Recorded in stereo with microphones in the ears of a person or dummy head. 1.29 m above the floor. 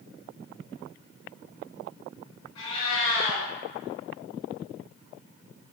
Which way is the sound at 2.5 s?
30° left (ahead or behind).